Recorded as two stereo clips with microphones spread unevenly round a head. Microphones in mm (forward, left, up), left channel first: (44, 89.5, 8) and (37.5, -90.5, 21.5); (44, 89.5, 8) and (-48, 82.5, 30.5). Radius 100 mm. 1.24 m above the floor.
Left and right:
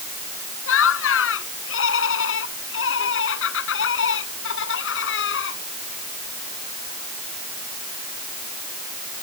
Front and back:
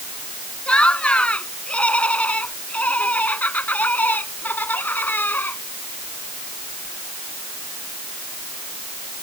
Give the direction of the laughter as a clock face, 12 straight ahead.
9 o'clock.